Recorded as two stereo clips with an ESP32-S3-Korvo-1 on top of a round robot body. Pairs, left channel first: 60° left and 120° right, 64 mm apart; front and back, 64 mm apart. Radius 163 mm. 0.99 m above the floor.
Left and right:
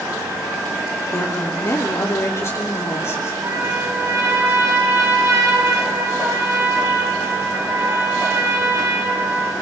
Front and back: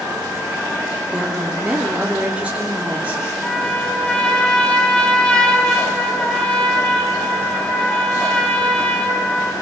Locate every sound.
1.1 s a woman speaking: 105° left, 3.5 m
3.4 s a trumpet: 70° right, 9.5 m